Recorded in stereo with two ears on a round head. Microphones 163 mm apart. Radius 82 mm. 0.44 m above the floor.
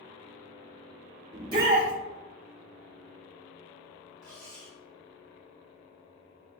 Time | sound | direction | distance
1.3 | a shout | 20° right (ahead or behind) | 0.7 m
4.2 | cutlery clinking | 20° left (ahead or behind) | 1.5 m